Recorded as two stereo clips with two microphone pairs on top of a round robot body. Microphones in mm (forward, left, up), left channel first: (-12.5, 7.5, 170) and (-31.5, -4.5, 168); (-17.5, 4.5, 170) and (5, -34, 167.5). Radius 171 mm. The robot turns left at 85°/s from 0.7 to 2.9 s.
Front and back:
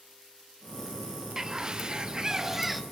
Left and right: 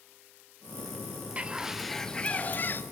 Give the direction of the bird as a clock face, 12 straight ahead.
3 o'clock.